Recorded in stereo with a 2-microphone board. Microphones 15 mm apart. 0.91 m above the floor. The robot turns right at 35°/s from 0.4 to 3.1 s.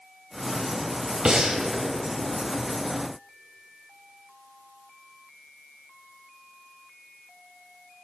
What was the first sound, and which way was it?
Breathing, 55° right (ahead or behind).